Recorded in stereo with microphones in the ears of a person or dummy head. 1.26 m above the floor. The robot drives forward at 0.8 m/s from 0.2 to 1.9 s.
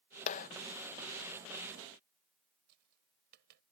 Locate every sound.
0.3 s a clap: 45° left (ahead or behind); by 0.5 s 50° left (ahead or behind)
2.7 s tapping: 60° right (ahead or behind)